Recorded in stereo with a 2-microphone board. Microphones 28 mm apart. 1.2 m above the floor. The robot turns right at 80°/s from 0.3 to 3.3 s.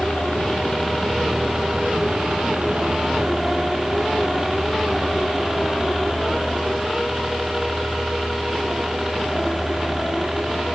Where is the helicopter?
65° left (ahead or behind); by 10.8 s 5° right (ahead or behind).